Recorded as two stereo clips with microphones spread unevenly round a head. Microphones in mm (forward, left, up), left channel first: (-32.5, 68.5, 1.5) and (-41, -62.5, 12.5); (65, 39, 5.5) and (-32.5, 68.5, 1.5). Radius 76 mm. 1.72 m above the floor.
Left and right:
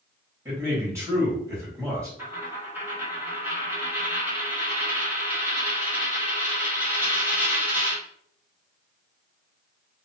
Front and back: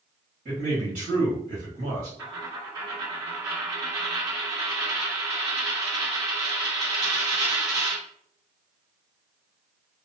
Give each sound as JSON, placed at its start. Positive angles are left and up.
{"t": 0.5, "sound": "a man speaking", "azimuth_deg": -160, "distance_m": 1.9}
{"t": 2.2, "sound": "a dropped coin", "azimuth_deg": -150, "distance_m": 1.3}